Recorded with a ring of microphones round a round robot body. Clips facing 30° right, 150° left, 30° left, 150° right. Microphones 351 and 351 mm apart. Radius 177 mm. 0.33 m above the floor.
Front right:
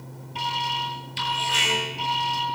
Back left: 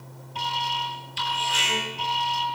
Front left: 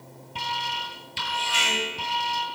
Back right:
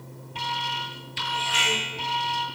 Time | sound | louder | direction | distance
0.3 | an alarm | even, even | 30° left | 9 m